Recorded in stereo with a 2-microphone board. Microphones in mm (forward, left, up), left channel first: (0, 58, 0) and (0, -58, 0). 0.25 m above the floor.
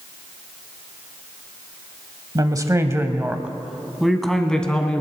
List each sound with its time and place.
2.4 s a woman speaking: 35° right (ahead or behind), 1.1 m; by 5.0 s 10° left (ahead or behind), 1.9 m